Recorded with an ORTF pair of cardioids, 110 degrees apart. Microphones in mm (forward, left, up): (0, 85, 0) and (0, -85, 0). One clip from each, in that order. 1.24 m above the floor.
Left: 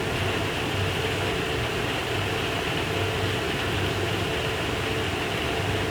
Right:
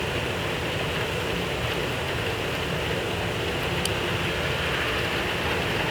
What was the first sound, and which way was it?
A fan, 65° left.